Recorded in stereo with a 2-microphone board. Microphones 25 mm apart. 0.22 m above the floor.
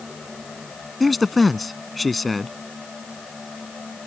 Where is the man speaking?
Centre (ahead or behind).